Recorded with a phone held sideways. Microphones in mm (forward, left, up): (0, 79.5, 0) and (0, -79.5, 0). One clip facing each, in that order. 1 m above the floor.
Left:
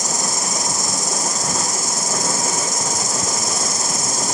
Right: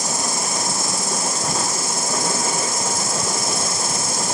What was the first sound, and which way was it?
An insect, 40° left (ahead or behind).